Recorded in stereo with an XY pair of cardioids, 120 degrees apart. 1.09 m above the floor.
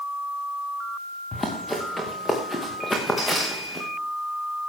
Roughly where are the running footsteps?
Ahead.